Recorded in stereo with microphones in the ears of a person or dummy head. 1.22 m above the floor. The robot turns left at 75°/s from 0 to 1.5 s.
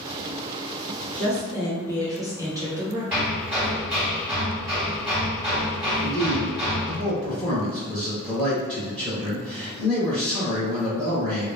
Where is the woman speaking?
40° right (ahead or behind), 1.2 m; by 3.0 s 20° right (ahead or behind), 1.2 m.